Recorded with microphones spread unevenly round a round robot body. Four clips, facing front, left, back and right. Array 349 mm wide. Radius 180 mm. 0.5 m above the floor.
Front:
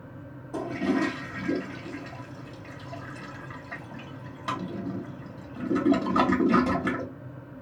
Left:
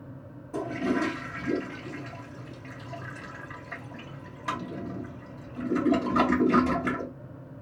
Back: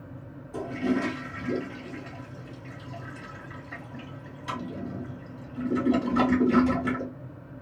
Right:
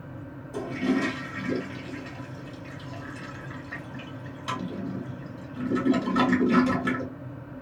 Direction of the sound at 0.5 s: 10° left.